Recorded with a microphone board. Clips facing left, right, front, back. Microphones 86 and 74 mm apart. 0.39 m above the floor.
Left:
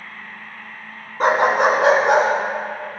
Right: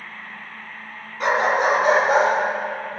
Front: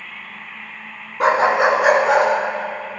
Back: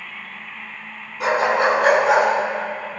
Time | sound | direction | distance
1.2 | a dog barking | 40° left | 1.1 m